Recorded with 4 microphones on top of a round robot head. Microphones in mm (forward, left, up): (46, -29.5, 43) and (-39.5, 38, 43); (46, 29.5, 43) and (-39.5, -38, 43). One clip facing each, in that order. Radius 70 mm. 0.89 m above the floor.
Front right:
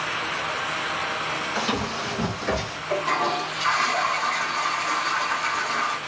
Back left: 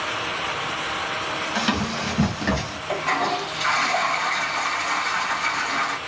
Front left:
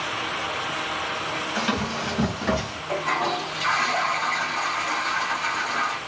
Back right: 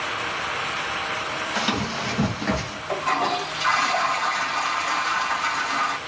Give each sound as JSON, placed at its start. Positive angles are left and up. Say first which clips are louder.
{"t": 1.6, "sound": "running footsteps", "louder": "back left 3 dB, even", "azimuth_deg": 160, "distance_m": 1.4}
{"t": 2.9, "sound": "a toilet flushing", "louder": "even, back right 2 dB", "azimuth_deg": 160, "distance_m": 1.4}